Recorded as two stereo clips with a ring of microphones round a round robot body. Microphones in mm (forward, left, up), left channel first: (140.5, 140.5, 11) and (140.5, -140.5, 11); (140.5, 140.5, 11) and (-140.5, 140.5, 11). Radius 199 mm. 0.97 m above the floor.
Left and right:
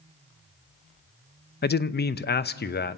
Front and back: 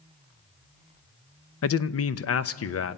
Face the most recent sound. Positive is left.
turn(degrees=35)